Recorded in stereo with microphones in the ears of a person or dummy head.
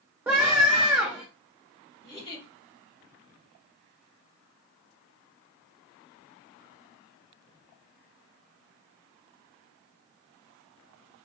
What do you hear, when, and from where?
0.3 s a scream: 10° right (ahead or behind), 0.9 m
2.0 s a giggle: 25° left (ahead or behind), 2.5 m